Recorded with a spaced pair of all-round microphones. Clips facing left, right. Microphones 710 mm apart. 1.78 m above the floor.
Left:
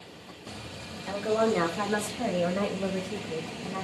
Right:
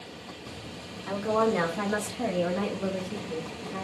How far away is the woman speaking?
About 1.3 m.